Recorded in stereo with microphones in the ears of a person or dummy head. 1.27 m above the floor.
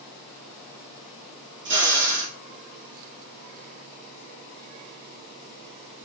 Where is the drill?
60° right (ahead or behind), 2.5 m.